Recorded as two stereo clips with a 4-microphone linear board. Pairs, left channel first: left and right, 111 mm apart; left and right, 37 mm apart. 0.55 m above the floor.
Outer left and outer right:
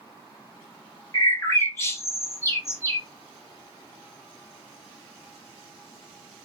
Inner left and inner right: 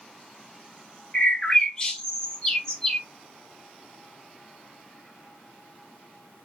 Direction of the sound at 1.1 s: 25° left (ahead or behind).